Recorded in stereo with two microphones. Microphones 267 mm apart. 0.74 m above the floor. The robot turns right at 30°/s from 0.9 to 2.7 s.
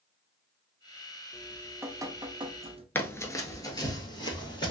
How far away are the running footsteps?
About 0.7 m.